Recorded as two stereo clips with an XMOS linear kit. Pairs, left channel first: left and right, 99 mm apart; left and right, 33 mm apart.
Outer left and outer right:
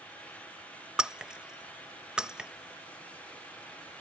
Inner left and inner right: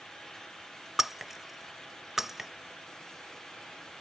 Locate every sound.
1.0 s breaking glass: 10° right (ahead or behind)